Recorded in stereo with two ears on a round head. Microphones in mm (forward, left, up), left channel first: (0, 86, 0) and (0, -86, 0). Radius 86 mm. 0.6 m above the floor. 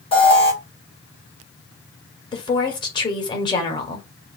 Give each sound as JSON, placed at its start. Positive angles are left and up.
{"t": 0.1, "sound": "an alarm", "side_deg": 30, "distance_m": 1.8}
{"t": 2.3, "sound": "a woman speaking", "side_deg": 25, "distance_m": 1.8}